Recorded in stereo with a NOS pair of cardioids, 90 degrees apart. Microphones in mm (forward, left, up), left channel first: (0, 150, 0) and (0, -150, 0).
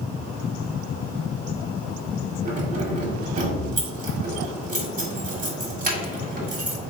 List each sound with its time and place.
2.5 s keys jangling: 25° right, 1.5 m